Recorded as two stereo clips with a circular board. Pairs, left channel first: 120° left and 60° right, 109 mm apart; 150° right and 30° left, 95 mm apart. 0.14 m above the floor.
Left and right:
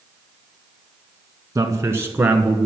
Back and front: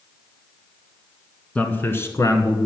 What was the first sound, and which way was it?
A man speaking, 85° right.